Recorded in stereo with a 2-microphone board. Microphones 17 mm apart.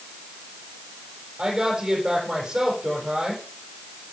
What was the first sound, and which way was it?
A woman speaking, 50° right (ahead or behind).